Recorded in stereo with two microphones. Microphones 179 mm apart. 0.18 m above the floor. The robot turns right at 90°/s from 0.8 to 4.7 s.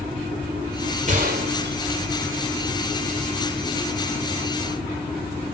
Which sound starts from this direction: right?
A gunshot, at 1.1 s.